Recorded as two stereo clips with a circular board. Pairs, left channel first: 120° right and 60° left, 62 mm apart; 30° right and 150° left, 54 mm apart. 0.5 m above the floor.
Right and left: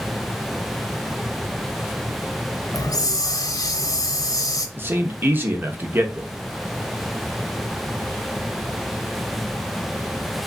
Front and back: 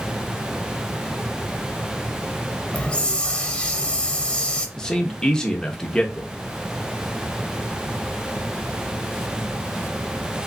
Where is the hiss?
100° right, 0.7 m.